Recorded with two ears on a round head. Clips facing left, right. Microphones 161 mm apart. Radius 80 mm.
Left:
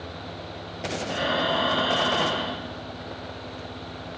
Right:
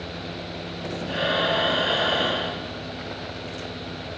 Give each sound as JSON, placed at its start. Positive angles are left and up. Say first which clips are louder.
{"t": 1.1, "sound": "breathing", "louder": "right 2 dB", "side_deg": -25, "distance_m": 4.0}